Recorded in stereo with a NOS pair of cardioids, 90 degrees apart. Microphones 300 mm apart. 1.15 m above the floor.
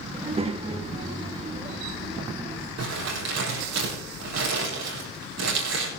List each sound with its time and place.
0.1 s a child speaking: 20° right, 1.2 m
2.8 s crumpling: 60° right, 7.5 m